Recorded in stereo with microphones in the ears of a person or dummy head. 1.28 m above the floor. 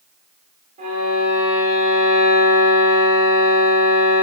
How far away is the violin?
About 4 m.